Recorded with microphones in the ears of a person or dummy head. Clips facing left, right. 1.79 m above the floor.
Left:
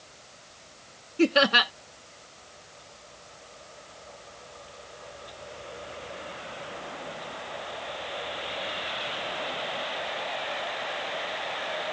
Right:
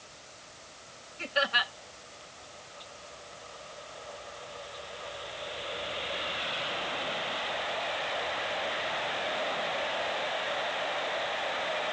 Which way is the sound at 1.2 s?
75° left (ahead or behind).